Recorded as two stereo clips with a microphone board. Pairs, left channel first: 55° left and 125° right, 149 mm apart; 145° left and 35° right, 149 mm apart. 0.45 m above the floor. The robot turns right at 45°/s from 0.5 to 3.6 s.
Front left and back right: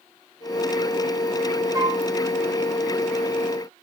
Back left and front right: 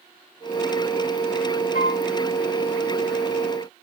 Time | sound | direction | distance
1.7 | a flute | 170° left | 4.5 m